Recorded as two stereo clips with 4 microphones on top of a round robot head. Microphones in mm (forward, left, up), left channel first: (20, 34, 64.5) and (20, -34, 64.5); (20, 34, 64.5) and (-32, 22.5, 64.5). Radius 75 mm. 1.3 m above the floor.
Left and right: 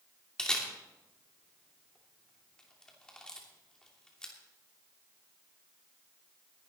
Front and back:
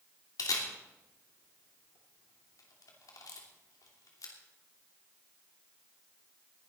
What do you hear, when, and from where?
0.4 s a camera shutter: 10° left, 2.5 m